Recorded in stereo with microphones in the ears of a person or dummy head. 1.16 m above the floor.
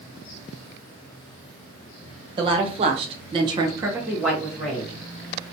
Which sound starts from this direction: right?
A woman speaking, at 2.4 s.